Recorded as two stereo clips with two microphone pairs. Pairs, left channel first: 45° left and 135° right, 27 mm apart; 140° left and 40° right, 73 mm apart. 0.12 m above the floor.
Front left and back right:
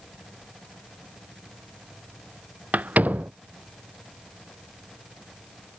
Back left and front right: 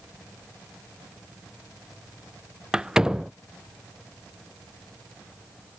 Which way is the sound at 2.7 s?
120° right.